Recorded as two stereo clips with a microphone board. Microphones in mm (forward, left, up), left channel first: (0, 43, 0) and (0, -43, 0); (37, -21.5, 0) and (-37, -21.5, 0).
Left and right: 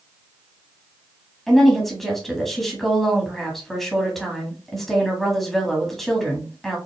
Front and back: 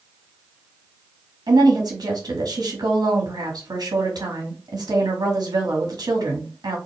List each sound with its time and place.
1.5 s a woman speaking: 175° left, 1.7 m